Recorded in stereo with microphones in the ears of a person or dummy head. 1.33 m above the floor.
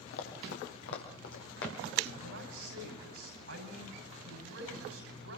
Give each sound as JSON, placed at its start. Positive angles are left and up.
{"t": 0.1, "sound": "running footsteps", "side_deg": 70, "distance_m": 3.5}
{"t": 2.2, "sound": "a man speaking", "side_deg": -80, "distance_m": 6.5}